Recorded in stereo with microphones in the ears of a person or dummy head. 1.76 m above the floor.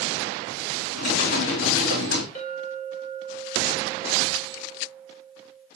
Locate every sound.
0.9 s typing on a keyboard: 70° left (ahead or behind), 3.5 m
2.4 s a clink: 40° left (ahead or behind), 2.5 m